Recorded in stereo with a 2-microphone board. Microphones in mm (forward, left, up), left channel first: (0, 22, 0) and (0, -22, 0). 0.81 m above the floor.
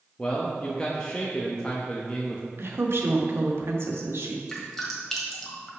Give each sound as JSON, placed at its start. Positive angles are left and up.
{"t": 0.2, "sound": "a man speaking", "side_deg": 20, "distance_m": 0.8}
{"t": 2.6, "sound": "a woman speaking", "side_deg": -60, "distance_m": 1.2}
{"t": 4.5, "sound": "dripping", "side_deg": 10, "distance_m": 1.6}